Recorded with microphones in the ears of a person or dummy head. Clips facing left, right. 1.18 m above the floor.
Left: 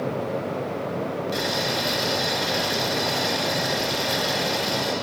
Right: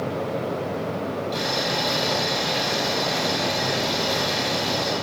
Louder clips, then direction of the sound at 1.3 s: Even; 15° left (ahead or behind).